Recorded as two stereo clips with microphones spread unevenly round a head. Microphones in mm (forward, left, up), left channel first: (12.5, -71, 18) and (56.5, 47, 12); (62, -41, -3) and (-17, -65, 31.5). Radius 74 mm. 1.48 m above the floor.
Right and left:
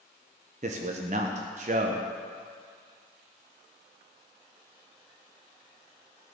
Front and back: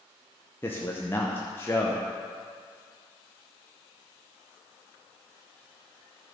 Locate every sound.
0.6 s a man speaking: 105° left, 0.6 m